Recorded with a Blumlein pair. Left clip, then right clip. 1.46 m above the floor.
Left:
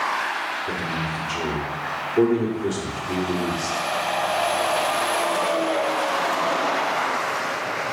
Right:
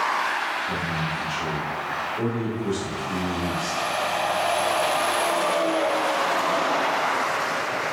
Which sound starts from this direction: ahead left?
A man speaking, at 0.7 s.